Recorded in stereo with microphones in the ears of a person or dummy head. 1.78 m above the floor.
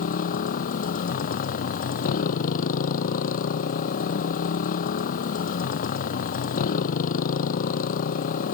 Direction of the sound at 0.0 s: 45° left (ahead or behind).